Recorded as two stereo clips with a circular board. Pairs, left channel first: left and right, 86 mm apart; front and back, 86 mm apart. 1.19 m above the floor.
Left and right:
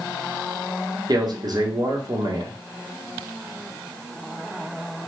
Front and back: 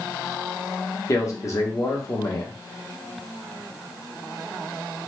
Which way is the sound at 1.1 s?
55° right.